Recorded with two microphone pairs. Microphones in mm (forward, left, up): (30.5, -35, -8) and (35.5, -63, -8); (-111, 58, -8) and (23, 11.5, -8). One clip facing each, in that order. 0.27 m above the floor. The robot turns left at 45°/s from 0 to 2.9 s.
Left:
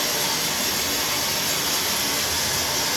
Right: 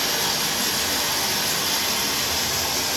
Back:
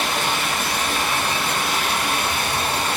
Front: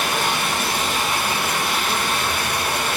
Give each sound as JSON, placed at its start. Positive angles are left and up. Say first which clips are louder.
{"t": 0.0, "sound": "running water", "louder": "right 1 dB, front 1 dB", "azimuth_deg": -40, "distance_m": 1.5}